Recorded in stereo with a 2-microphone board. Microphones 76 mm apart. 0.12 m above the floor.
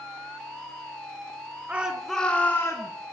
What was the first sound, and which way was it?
A shout, 20° right (ahead or behind).